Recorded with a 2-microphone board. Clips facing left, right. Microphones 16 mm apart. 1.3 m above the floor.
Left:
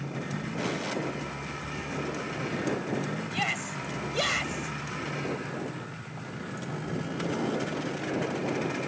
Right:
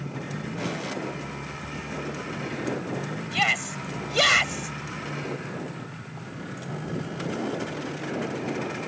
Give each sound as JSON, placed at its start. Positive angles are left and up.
{"t": 3.3, "sound": "a shout", "side_deg": -25}